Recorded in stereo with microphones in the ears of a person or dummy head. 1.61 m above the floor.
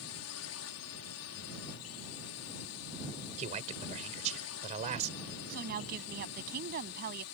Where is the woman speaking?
50° right (ahead or behind).